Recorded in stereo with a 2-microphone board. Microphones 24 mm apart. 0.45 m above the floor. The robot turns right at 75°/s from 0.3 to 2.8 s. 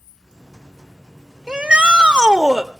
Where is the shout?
110° right, 1.4 m; by 2.7 s 20° right, 1.4 m.